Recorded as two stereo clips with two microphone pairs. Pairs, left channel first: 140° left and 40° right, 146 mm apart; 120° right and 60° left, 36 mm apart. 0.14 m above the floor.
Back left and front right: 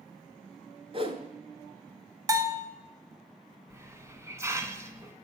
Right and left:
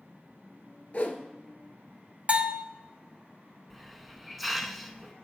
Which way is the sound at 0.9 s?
80° right.